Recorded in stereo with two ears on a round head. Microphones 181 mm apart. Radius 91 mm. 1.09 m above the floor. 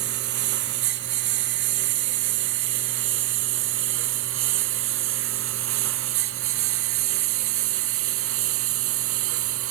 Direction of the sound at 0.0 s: 55° right (ahead or behind).